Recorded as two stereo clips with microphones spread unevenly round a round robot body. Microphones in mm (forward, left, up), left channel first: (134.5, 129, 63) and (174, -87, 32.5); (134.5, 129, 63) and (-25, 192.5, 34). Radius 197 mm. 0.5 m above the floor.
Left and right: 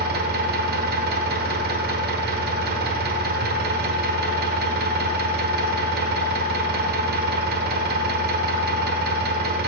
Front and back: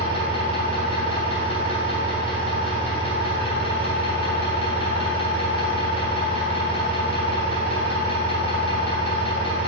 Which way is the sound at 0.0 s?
90° right.